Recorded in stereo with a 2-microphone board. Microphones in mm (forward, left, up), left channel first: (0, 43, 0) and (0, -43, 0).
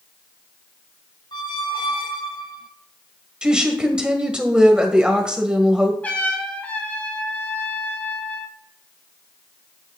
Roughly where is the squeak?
Left.